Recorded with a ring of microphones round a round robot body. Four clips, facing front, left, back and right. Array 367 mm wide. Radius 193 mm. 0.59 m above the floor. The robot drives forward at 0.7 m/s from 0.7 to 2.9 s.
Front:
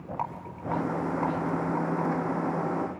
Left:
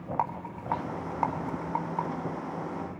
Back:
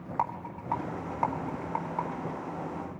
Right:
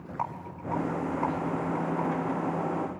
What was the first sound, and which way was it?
A rattle, 100° left.